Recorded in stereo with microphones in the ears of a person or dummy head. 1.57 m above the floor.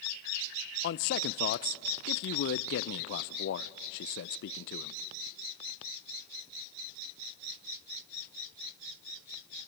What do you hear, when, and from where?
0.8 s a man speaking: 60° left (ahead or behind), 0.7 m